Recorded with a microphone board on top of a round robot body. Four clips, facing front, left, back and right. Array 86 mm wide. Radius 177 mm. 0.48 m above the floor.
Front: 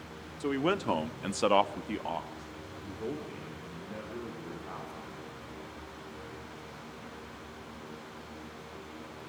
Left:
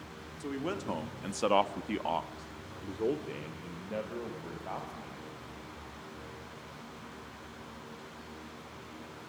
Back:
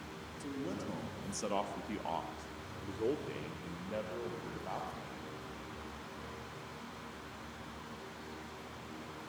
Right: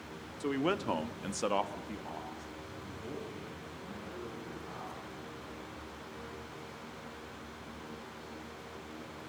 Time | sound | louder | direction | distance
0.4 | a man speaking | right 4 dB, front 11 dB | 30° right | 2 m